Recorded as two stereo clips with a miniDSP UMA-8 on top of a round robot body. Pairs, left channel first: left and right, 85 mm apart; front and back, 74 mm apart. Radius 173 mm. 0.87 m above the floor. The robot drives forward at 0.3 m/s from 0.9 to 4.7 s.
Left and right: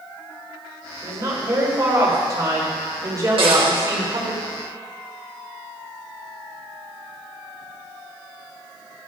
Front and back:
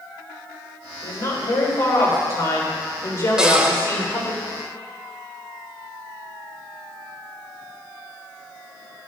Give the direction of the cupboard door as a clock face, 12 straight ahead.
3 o'clock.